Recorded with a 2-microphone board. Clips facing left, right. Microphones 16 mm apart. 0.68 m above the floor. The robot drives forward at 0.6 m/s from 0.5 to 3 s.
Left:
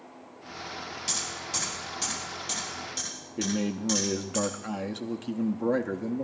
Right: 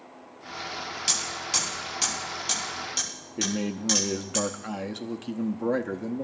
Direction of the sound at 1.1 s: 30° right (ahead or behind).